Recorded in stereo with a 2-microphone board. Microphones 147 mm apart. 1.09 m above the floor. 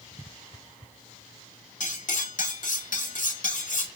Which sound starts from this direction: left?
Cutlery clinking, at 1.8 s.